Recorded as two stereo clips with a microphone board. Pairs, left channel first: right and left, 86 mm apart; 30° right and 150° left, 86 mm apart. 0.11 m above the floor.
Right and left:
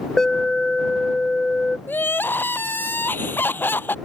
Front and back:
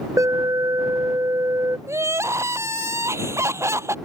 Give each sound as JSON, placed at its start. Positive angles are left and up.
{"t": 0.2, "sound": "an alarm", "azimuth_deg": -170}
{"t": 1.9, "sound": "crying", "azimuth_deg": -155}